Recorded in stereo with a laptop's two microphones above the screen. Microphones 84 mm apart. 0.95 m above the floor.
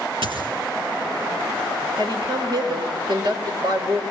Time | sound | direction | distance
0.2 | a dropped coin | 80° right | 5.5 m
2.0 | a woman speaking | 55° right (ahead or behind) | 4.5 m